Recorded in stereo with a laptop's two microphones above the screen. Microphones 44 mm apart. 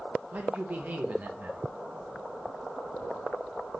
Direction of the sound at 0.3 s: 35° right (ahead or behind).